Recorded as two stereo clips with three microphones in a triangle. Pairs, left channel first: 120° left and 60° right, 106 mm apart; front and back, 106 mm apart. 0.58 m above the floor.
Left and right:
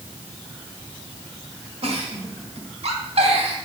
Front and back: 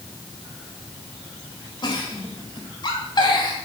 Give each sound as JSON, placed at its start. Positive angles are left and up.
{"t": 1.8, "sound": "a giggle", "azimuth_deg": -45, "distance_m": 1.3}